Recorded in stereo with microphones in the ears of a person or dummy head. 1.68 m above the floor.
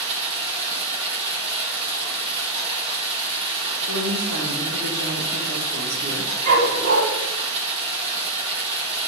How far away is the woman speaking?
About 1.7 m.